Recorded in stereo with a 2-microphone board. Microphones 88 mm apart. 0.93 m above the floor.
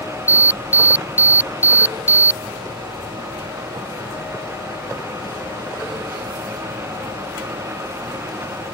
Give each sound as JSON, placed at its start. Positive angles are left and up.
{"t": 0.3, "sound": "an alarm", "side_deg": -20}